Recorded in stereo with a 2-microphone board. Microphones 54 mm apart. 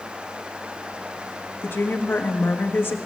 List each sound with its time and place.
1.6 s a woman speaking: 45° left (ahead or behind), 1.3 m